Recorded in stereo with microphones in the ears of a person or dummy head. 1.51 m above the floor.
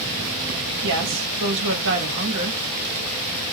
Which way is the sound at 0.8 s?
65° right (ahead or behind).